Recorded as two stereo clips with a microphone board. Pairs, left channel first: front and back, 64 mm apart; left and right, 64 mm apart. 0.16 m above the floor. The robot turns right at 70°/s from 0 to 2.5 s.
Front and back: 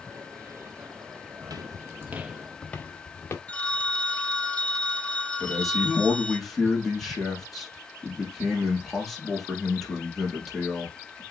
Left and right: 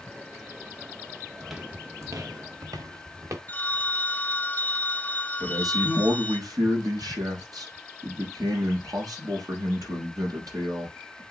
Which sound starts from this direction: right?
A man speaking, at 5.4 s.